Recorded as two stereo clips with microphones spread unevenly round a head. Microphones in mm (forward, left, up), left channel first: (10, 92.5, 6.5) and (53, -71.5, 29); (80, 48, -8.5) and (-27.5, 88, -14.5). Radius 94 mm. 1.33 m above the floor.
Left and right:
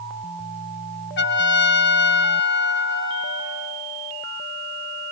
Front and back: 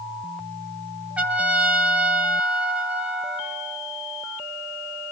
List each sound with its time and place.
1.2 s a trumpet: 80° left, 2.5 m